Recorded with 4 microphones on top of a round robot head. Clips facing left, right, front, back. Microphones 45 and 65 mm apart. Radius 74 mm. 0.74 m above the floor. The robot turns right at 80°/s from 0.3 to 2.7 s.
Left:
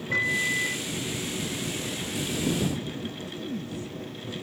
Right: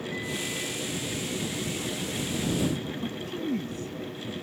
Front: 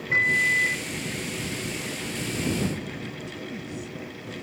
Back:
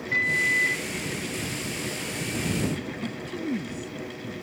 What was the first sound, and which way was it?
A microwave, 65° left.